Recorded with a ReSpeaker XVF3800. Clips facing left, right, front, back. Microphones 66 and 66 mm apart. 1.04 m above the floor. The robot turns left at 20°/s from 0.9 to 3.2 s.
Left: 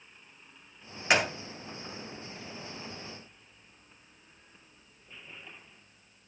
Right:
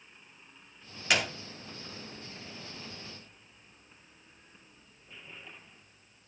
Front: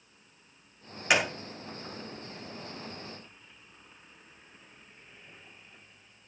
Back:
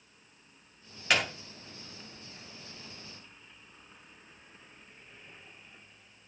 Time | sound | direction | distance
1.1 | a gunshot | 55° left | 0.6 m